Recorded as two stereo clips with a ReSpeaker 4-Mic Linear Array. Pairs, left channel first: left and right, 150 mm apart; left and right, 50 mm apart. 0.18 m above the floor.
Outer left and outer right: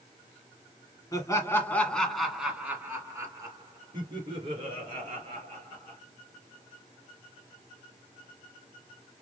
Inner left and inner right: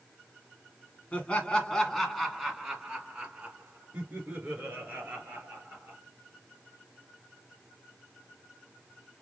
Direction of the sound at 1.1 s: 25° left (ahead or behind).